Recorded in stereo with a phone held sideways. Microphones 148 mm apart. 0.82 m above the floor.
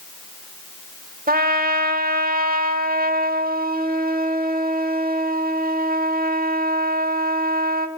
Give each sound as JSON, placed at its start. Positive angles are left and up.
{"t": 1.3, "sound": "a trumpet", "side_deg": -85, "distance_m": 1.4}